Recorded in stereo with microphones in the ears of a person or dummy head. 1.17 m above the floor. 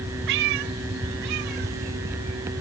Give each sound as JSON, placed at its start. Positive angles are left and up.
{"t": 0.3, "sound": "a cat meowing", "side_deg": -55}